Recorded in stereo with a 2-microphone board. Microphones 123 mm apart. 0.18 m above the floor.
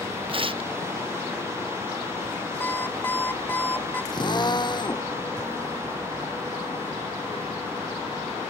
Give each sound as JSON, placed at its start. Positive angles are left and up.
{"t": 0.3, "sound": "tearing paper", "side_deg": -45}
{"t": 2.6, "sound": "an alarm clock", "side_deg": 15}
{"t": 4.1, "sound": "a drill", "side_deg": 35}